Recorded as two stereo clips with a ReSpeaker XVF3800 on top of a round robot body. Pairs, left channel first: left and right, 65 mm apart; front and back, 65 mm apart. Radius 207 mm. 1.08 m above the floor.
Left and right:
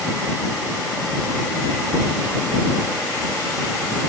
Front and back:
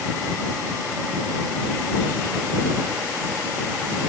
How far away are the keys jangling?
I don't hear keys jangling.